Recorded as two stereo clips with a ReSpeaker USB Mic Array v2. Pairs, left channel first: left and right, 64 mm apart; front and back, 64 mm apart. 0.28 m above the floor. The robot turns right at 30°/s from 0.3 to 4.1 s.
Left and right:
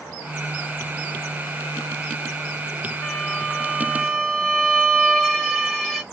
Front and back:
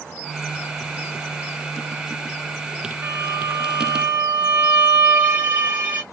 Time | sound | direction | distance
3.0 | a violin | 145° left | 1.7 m